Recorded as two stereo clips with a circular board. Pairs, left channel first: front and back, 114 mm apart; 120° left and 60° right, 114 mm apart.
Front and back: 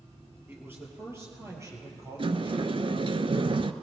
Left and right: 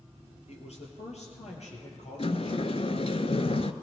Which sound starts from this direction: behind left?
A sliding door, at 2.2 s.